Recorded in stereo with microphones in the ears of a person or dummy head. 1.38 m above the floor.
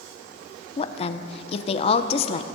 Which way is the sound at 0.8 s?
35° left (ahead or behind).